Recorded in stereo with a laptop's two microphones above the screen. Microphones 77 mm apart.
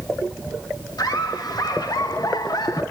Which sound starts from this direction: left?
Laughter, at 1.0 s.